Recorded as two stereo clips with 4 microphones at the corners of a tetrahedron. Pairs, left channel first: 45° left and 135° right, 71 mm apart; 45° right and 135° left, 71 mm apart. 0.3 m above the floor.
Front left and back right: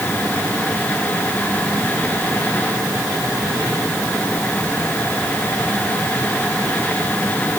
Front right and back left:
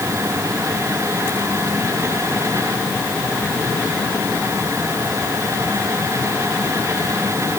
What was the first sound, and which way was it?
Only background noise.